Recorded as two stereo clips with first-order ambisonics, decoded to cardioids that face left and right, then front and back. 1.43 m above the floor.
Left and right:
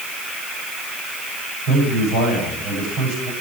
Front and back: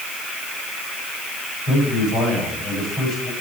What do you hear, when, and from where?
1.7 s a man speaking: 60° right, 10 m